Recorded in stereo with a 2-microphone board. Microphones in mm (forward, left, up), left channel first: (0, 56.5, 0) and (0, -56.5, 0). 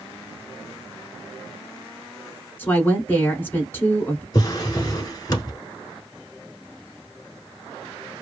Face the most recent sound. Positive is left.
turn(degrees=35)  # may be behind; listen again after turning